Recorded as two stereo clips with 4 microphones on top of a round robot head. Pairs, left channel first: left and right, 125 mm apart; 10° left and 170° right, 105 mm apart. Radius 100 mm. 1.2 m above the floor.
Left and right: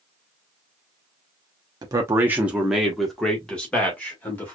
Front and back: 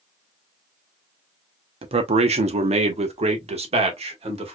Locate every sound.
1.8 s a man speaking: 150° right, 0.7 m; by 4.5 s 165° left, 1.9 m